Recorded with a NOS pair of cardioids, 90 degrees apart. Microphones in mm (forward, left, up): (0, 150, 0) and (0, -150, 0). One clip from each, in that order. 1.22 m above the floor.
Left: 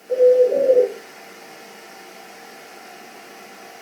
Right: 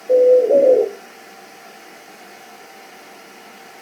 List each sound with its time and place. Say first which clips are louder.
0.1 s a bird: right 3 dB; 60° right, 0.7 m